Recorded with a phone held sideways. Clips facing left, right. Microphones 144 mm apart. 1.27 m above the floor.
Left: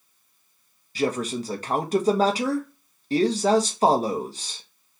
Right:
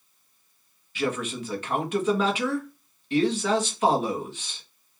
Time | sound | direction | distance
0.9 | a man speaking | 35° left (ahead or behind) | 1.0 m